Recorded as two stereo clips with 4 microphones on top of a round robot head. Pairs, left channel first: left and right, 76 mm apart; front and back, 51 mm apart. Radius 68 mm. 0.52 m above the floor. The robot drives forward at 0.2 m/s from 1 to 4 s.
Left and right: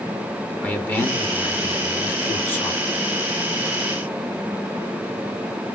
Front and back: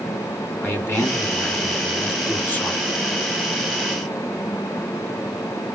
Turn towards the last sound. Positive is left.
turn(degrees=50)